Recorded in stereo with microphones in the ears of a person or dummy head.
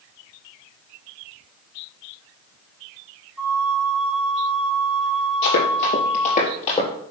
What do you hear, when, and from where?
3.4 s a flute: 5° right (ahead or behind), 1.5 m
5.4 s running footsteps: 55° left (ahead or behind), 3 m; by 6.9 s 25° left (ahead or behind), 3 m